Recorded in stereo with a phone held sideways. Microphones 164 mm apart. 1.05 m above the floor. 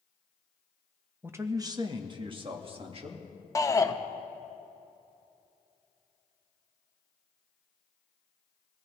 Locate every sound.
1.2 s a man speaking: 10° right (ahead or behind), 0.7 m; by 3.3 s 40° right (ahead or behind), 2.0 m
3.5 s a shout: 20° left (ahead or behind), 0.8 m